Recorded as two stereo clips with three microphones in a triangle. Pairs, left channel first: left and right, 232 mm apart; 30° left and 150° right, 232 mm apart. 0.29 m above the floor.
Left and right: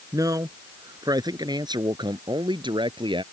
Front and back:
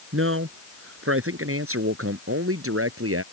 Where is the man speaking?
165° right; by 3.2 s 160° right.